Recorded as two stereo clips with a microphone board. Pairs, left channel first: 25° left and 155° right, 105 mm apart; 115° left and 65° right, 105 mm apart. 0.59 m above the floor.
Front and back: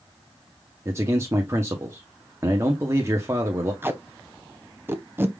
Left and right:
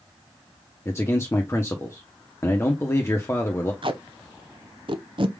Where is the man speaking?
155° left, 0.8 m.